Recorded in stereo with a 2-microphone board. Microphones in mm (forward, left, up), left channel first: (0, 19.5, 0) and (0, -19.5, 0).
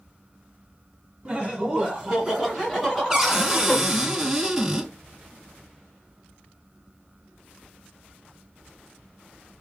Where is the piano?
No piano in this recording.